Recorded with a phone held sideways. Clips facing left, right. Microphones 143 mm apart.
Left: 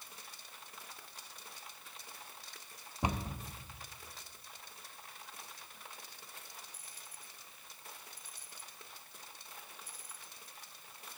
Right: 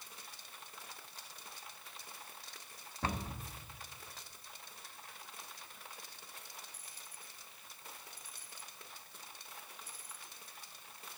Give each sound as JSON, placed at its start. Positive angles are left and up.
{"t": 3.0, "sound": "a cupboard door", "side_deg": 15, "distance_m": 0.6}